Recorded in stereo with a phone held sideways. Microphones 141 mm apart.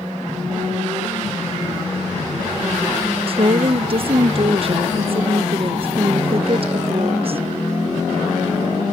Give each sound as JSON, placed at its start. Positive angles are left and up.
{"t": 3.3, "sound": "a woman speaking", "side_deg": -45, "distance_m": 0.6}